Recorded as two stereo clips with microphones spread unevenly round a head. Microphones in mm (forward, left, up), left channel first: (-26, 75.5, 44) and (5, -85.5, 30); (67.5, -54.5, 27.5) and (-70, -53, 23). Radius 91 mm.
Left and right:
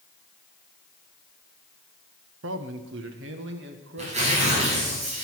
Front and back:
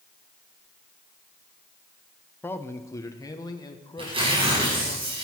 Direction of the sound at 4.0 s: 130° right.